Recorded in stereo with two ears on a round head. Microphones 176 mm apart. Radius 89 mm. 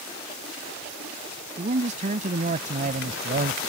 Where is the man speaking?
40° right (ahead or behind); by 3.6 s 45° right (ahead or behind).